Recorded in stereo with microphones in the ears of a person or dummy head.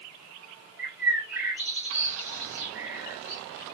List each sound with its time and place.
0.8 s a bird: 10° right (ahead or behind), 2.5 m